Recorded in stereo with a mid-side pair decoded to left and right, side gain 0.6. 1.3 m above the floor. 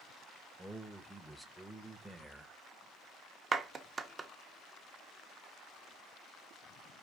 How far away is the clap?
About 0.7 m.